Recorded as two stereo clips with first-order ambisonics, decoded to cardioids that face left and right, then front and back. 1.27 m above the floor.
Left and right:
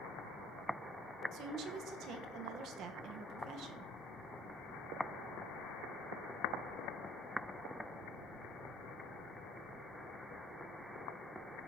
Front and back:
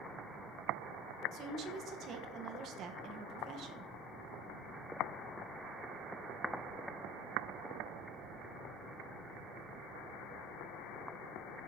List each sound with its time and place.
1.3 s a woman speaking: 130° right, 1.2 m